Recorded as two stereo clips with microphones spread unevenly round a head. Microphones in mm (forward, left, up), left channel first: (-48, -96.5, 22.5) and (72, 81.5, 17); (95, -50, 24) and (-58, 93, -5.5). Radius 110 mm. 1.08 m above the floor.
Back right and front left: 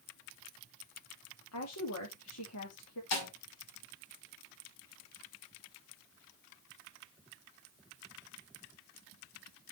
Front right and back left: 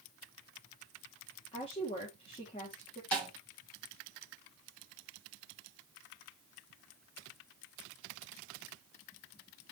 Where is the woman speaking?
110° right, 2.5 m.